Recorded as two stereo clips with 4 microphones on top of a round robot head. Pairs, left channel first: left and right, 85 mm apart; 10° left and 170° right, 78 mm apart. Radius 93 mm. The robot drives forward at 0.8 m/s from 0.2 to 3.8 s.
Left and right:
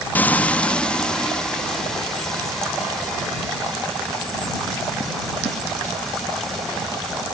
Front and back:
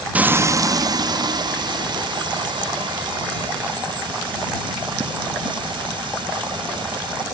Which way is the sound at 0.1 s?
135° left.